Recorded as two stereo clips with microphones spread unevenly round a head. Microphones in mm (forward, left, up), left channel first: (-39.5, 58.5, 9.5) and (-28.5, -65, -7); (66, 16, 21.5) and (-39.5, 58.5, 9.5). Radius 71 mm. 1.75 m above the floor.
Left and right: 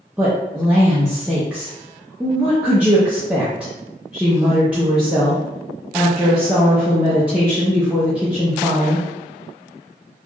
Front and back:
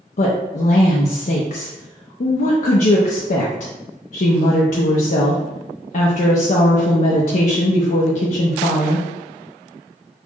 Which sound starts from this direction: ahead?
A woman speaking, at 0.2 s.